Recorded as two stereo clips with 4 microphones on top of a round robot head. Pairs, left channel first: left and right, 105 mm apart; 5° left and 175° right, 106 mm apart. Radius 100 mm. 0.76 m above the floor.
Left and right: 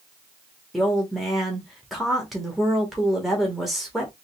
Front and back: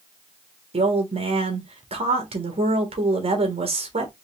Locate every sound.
0.7 s a woman speaking: straight behind, 1.6 m